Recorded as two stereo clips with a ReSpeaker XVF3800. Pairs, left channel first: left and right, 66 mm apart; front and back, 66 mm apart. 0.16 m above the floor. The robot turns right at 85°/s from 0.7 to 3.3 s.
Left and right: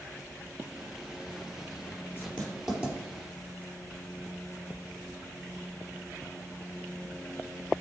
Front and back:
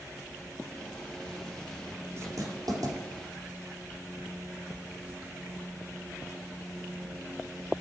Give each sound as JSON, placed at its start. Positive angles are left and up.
{"t": 2.2, "sound": "writing", "azimuth_deg": 140, "distance_m": 3.5}